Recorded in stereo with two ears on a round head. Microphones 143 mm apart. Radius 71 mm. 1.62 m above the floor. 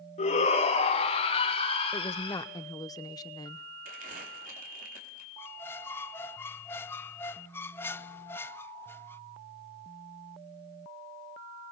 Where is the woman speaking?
25° left (ahead or behind), 0.9 m.